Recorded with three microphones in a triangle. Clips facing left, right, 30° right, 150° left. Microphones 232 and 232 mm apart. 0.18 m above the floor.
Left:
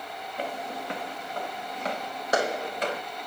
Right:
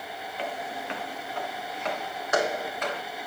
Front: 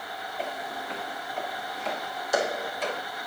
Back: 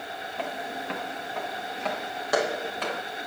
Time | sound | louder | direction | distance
0.4 | footsteps | left 1 dB, back 1 dB | 140° left | 3 m